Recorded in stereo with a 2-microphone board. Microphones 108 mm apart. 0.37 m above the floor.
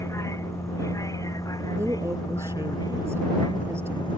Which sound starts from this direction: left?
A vehicle, at 0.0 s.